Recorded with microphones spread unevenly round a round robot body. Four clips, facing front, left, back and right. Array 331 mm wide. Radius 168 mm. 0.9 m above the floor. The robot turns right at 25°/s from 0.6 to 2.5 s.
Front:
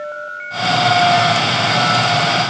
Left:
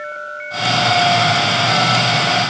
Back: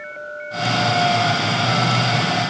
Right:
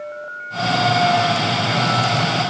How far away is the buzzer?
I don't hear a buzzer.